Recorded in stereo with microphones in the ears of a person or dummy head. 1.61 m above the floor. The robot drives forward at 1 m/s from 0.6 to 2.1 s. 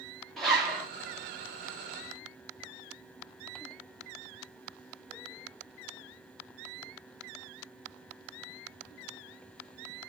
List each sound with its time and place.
0.4 s a zipper: 10° left (ahead or behind), 1.4 m; by 0.9 s 15° left (ahead or behind), 1.2 m